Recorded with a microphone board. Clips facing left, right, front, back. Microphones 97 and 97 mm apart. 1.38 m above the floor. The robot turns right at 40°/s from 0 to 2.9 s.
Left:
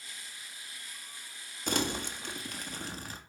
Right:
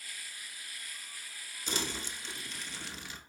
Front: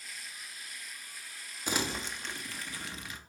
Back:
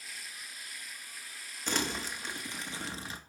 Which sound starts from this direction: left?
Crumpling, at 1.7 s.